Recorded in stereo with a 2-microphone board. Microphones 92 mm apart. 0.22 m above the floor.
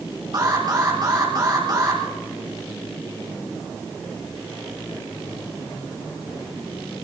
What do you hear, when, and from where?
0.3 s an alarm: 45° right (ahead or behind), 7 m